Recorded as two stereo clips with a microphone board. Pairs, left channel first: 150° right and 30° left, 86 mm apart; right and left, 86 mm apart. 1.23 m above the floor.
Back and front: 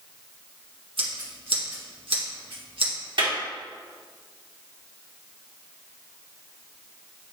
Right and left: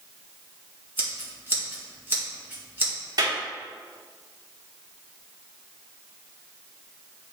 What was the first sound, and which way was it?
Scissors, 25° left.